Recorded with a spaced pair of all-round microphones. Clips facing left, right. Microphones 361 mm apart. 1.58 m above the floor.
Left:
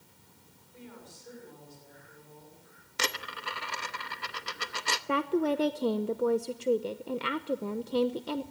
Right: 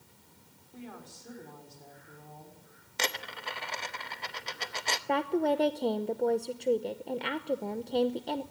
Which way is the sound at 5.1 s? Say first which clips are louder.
Left 1 dB; 15° left (ahead or behind).